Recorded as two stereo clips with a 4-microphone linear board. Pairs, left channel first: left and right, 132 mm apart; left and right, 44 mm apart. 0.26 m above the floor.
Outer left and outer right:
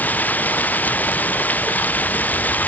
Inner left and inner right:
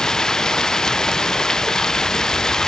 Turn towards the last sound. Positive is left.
turn(degrees=10)  # may be behind; listen again after turning